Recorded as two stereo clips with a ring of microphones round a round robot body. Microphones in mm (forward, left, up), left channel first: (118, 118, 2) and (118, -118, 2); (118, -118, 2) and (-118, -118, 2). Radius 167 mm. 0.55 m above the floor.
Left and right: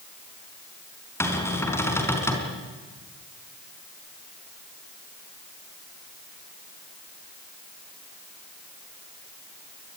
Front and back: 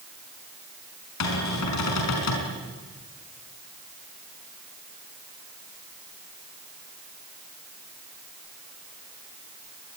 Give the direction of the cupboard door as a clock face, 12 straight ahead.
12 o'clock.